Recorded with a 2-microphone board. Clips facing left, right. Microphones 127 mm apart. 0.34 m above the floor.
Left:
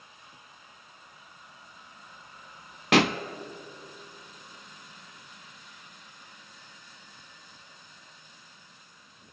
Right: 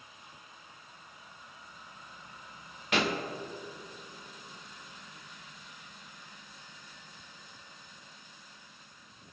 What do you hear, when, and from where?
2.9 s a pop: 85° left, 0.6 m